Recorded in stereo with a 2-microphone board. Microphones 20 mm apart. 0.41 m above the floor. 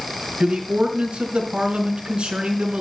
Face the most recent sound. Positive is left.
turn(degrees=-75)  # may be behind; listen again after turning